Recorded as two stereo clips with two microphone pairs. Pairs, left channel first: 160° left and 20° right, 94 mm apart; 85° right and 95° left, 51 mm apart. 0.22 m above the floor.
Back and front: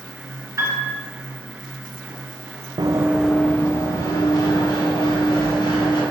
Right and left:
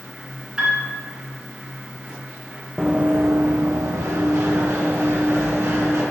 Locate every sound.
0.6 s a piano: 35° left, 1.6 m
2.8 s running footsteps: 20° left, 0.8 m; by 6.0 s 120° left, 4.5 m